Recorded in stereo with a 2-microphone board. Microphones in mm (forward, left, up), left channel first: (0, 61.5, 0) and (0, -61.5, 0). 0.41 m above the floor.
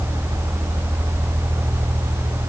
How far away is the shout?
I don't hear a shout.